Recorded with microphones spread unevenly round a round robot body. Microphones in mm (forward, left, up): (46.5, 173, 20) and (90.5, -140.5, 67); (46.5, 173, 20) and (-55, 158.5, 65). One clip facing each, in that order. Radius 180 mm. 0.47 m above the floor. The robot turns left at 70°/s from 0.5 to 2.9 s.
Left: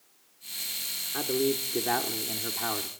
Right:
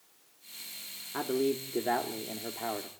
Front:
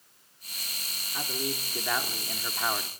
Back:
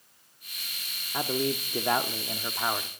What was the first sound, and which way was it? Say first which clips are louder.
A man speaking: left 2 dB, back 6 dB; 175° right.